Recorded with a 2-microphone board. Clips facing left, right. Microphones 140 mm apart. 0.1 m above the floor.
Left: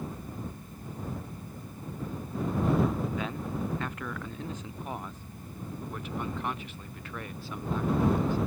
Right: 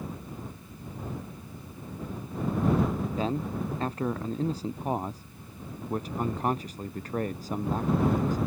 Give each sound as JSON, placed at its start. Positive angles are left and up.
{"t": 3.1, "sound": "a man speaking", "side_deg": -35}